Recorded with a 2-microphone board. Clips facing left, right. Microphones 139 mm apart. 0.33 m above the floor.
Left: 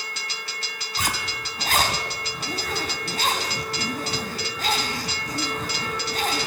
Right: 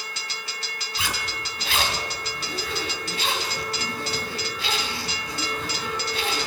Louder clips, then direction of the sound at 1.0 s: Left 2 dB; 45° left (ahead or behind).